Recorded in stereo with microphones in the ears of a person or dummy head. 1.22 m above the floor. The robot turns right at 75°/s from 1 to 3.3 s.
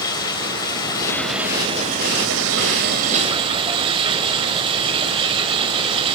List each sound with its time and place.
0.0 s running water: 155° left, 1.7 m; by 6.2 s 30° right, 1.7 m